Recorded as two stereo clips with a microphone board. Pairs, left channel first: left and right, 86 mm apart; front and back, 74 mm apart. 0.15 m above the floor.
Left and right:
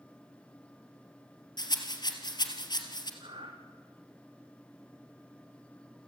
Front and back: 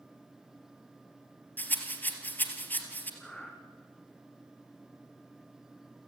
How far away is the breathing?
About 4 m.